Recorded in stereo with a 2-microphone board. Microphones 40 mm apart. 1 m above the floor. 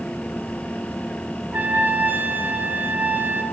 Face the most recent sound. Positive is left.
turn(degrees=-55)  # may be behind; listen again after turning